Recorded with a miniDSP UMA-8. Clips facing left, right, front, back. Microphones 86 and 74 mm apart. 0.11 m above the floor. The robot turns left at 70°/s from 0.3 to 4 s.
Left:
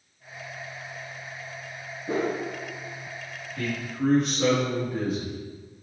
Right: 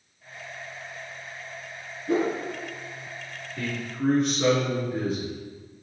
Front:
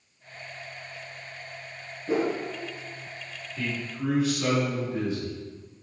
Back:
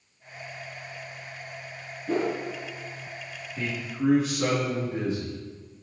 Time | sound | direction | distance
2.1 | a whoosh | 70° left | 1.3 m
3.6 | a man speaking | 155° right | 1.8 m